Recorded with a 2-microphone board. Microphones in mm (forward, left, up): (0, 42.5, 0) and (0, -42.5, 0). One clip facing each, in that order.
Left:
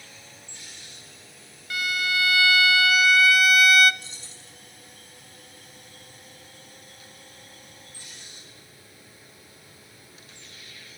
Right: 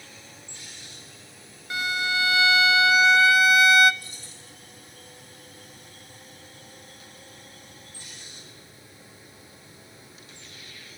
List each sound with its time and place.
1.7 s a violin: 25° right (ahead or behind), 0.5 m
4.0 s keys jangling: 25° left (ahead or behind), 6.5 m